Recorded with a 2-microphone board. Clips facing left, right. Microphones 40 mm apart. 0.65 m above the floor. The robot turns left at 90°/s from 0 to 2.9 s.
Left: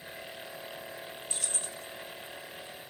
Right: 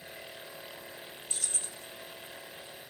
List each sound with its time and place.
1.3 s keys jangling: 165° left, 1.1 m; by 1.9 s 115° left, 1.1 m